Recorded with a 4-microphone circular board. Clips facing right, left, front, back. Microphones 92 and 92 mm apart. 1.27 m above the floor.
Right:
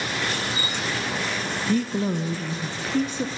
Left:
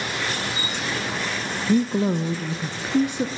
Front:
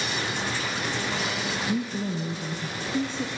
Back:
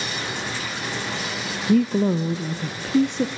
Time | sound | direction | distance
1.7 | a woman speaking | 165° left | 0.5 m